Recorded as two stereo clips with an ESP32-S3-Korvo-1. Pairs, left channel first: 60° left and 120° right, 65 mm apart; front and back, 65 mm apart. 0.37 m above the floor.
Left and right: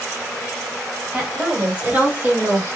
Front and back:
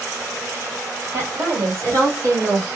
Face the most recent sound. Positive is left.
turn(degrees=-160)